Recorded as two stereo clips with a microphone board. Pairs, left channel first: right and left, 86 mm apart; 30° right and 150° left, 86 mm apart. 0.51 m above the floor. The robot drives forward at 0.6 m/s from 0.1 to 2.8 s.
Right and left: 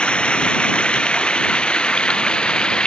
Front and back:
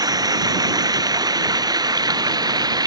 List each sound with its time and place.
0.0 s running water: 170° right